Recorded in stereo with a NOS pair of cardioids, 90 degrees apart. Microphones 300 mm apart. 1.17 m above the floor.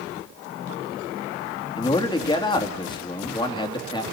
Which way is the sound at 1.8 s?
15° left.